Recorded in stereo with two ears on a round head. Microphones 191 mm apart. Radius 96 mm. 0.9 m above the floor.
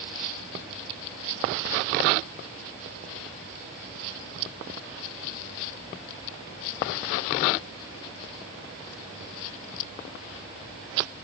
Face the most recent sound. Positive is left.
No sound to turn to.